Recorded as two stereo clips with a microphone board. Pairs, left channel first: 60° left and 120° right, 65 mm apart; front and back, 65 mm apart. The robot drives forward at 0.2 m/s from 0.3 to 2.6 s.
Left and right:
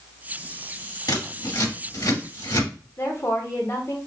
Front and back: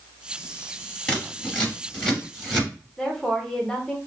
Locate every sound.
1.1 s scissors: 75° left, 2.5 m; by 2.7 s 85° left, 2.5 m
3.0 s a woman speaking: 75° left, 0.9 m